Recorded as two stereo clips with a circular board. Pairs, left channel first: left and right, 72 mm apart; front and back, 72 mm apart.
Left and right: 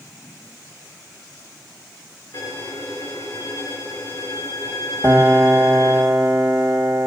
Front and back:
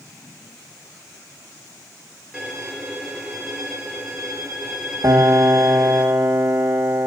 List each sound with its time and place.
2.3 s a violin: 100° left, 2.0 m
5.0 s a piano: 150° right, 1.1 m